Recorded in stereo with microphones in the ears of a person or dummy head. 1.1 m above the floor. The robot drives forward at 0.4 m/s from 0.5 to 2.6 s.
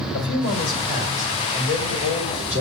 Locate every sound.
0.1 s a man speaking: 75° left (ahead or behind), 4 m; by 2.6 s 65° left (ahead or behind), 4.5 m